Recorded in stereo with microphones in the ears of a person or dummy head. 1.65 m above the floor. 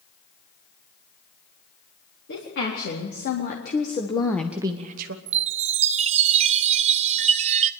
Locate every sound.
2.3 s a woman speaking: 60° left (ahead or behind), 3.5 m; by 5.2 s 60° right (ahead or behind), 1.2 m
5.3 s a chime: 40° right (ahead or behind), 0.6 m